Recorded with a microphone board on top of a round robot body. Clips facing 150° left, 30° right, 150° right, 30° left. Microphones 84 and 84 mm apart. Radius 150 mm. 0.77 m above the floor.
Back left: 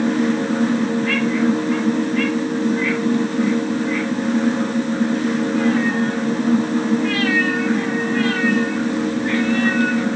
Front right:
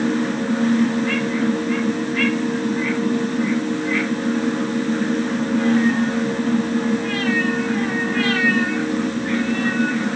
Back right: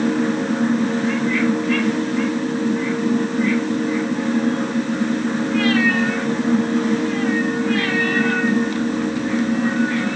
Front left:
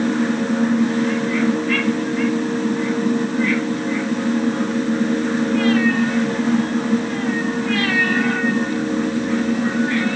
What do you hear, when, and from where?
Only background noise.